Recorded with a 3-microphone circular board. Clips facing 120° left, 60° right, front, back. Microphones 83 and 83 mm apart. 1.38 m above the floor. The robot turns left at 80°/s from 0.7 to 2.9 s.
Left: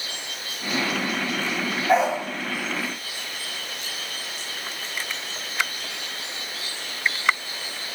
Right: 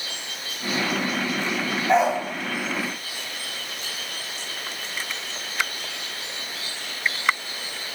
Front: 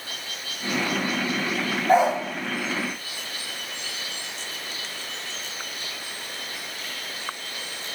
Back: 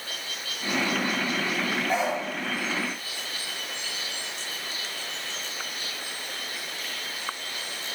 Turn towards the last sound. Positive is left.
turn(degrees=-45)